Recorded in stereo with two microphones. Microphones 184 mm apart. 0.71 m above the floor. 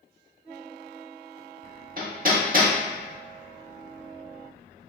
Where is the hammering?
50° right (ahead or behind), 0.7 m.